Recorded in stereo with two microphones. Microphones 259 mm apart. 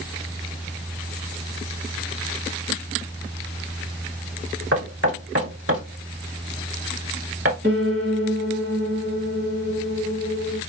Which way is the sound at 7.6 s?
40° right (ahead or behind).